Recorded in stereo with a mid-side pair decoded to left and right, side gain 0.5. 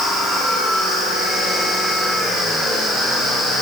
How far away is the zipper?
No zipper in this recording.